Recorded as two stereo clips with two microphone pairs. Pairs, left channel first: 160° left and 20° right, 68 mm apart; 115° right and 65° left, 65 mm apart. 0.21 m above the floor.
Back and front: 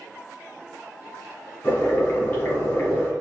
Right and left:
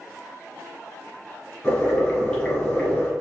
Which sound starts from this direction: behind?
Boiling, at 1.6 s.